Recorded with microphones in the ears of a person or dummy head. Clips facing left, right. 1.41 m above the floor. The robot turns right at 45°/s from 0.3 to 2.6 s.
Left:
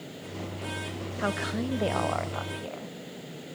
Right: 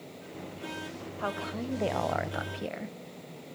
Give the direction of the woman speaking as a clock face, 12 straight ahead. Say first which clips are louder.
Left 4 dB; 7 o'clock.